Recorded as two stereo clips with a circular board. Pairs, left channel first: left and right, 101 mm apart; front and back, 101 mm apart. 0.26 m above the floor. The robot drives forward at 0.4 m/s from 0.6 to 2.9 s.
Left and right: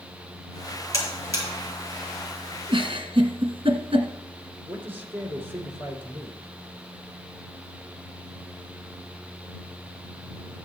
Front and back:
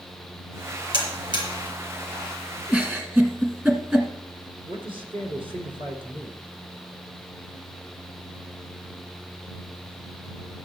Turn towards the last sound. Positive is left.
turn(degrees=-160)